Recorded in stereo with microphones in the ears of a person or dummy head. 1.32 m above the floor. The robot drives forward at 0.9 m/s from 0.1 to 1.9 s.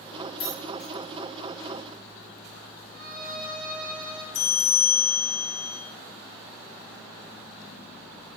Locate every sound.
0.4 s keys jangling: 50° left (ahead or behind), 3 m; by 0.9 s 45° left (ahead or behind), 3.5 m
2.9 s a violin: 50° right (ahead or behind), 1.6 m
4.3 s a bell: 75° left (ahead or behind), 1.4 m